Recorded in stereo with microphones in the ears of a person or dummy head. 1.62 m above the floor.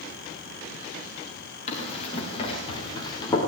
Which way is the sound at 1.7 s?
35° left (ahead or behind).